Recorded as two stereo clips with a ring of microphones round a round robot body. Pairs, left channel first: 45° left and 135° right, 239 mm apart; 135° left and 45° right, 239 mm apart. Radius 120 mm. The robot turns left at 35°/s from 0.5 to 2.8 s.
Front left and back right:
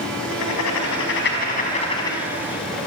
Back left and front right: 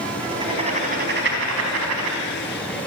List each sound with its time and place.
0.2 s writing: 25° left, 4 m; by 2.2 s 35° right, 4 m